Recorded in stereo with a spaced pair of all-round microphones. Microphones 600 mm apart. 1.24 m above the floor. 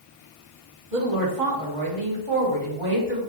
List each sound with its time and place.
0.9 s a woman speaking: 65° right (ahead or behind), 1.2 m